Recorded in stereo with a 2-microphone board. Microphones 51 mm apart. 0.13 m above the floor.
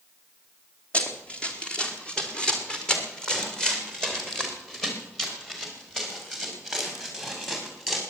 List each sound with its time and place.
0.9 s running footsteps: 25° left (ahead or behind), 2.5 m; by 8.0 s 5° left (ahead or behind), 7.5 m